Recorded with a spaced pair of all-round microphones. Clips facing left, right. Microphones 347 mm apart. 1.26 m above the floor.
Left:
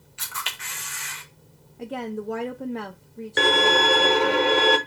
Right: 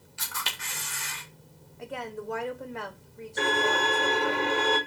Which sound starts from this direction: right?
A camera shutter, at 0.2 s.